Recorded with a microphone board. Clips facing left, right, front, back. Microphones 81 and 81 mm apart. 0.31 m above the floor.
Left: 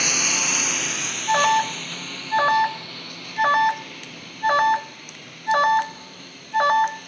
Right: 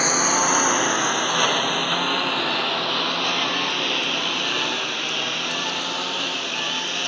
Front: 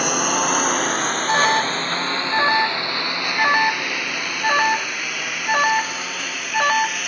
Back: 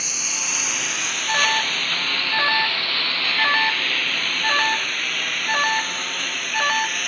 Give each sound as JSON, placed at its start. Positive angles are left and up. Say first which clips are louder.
{"t": 0.0, "sound": "a lawn mower", "louder": "right 7 dB, front 14 dB", "azimuth_deg": -30}
{"t": 1.3, "sound": "an alarm", "louder": "left 3 dB, front 3 dB", "azimuth_deg": 70}